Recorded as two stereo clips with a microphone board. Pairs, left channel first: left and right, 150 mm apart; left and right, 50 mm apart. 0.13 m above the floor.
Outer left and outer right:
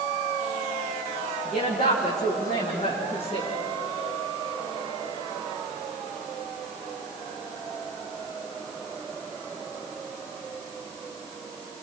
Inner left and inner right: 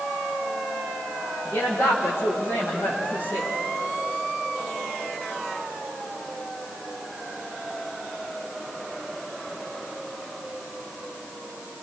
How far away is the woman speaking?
About 7 m.